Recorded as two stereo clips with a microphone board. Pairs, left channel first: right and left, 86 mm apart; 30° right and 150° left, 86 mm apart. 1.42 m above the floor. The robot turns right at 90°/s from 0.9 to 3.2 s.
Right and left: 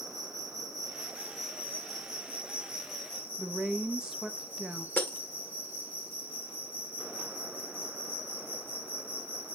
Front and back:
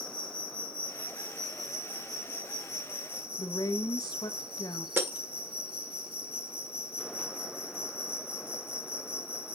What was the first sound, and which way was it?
An insect, 50° right.